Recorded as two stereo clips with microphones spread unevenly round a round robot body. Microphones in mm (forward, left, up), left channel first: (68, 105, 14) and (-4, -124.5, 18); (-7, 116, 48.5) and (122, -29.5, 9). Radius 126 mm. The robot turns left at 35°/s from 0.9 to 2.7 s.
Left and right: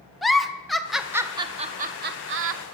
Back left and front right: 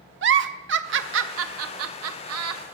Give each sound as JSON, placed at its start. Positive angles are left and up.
{"t": 0.2, "sound": "a giggle", "azimuth_deg": -20, "distance_m": 0.6}